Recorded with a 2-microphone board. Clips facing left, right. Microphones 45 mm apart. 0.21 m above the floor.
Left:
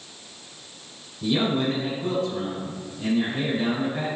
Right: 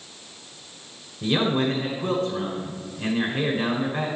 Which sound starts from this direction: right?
A man speaking, at 1.2 s.